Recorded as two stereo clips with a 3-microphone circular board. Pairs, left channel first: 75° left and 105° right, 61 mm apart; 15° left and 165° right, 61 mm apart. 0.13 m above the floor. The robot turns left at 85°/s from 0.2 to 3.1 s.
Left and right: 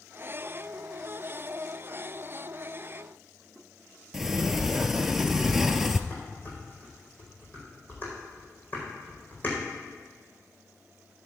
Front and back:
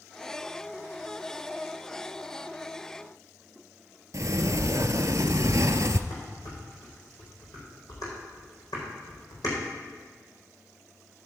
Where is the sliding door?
170° left, 0.6 m.